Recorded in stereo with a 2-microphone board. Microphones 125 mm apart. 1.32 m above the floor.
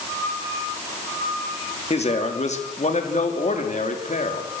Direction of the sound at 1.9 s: 60° left (ahead or behind).